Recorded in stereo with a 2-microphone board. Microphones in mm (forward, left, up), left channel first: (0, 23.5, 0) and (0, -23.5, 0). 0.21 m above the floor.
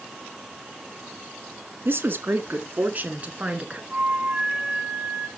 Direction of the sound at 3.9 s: 30° right (ahead or behind).